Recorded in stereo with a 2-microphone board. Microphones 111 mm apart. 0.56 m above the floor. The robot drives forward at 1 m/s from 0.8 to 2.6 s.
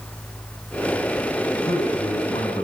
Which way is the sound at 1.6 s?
65° left (ahead or behind).